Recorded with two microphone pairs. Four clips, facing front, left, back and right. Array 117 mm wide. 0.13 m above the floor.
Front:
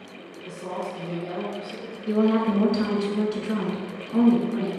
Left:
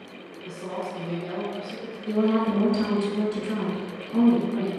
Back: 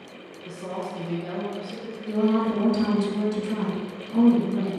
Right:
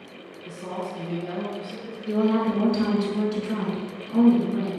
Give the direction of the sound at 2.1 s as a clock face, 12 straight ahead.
12 o'clock.